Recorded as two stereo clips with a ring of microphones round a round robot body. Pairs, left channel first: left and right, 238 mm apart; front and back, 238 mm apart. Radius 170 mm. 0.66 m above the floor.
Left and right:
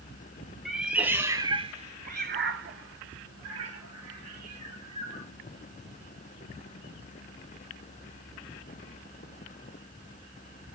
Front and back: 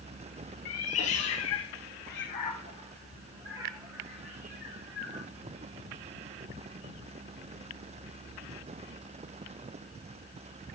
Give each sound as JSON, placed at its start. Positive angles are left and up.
{"t": 0.7, "sound": "a cat meowing", "azimuth_deg": 0, "distance_m": 1.7}